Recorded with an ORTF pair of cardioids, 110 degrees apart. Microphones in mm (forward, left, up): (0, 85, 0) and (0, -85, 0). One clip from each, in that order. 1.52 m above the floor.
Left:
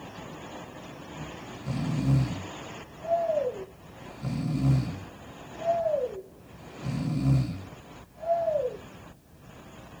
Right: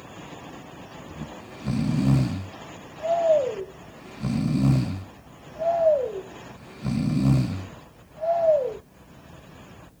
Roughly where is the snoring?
Ahead right.